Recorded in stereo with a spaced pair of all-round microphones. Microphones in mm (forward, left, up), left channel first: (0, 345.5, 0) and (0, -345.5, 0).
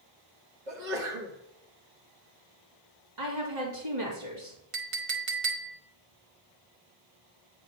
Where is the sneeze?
85° right, 1.9 m.